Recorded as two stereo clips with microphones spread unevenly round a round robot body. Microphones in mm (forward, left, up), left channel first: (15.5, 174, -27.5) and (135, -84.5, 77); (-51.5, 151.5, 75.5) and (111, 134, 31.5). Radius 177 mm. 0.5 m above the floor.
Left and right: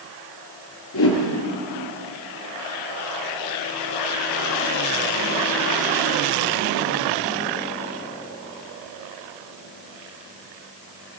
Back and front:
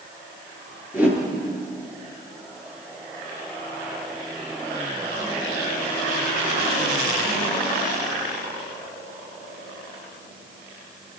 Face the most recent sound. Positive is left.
turn(degrees=75)